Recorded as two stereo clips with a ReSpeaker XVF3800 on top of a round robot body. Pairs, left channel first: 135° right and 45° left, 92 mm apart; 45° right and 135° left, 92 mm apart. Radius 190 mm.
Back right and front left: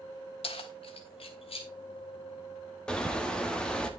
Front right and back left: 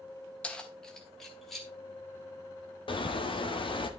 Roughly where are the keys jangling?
Behind right.